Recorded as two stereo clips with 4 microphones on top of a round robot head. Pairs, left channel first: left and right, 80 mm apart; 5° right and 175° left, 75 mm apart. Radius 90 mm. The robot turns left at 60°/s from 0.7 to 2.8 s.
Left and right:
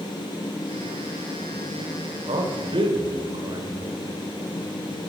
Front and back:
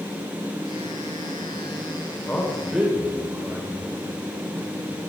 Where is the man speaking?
80° right, 3 m; by 4.2 s 110° right, 3 m.